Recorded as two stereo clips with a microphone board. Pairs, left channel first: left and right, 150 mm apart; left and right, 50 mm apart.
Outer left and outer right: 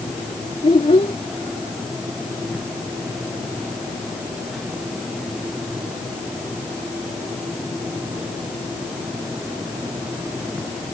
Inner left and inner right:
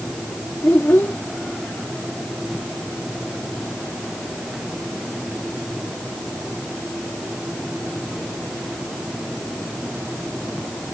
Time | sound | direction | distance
0.6 | a child speaking | 45° left (ahead or behind) | ?